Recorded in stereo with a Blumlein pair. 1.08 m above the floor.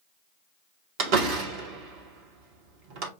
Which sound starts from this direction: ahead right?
A door slam, at 1.0 s.